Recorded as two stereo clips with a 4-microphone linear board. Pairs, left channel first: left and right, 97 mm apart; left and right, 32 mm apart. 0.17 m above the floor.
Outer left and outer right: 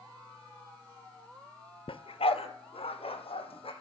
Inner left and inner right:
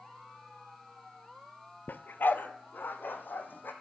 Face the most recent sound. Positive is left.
turn(degrees=75)  # may be behind; listen again after turning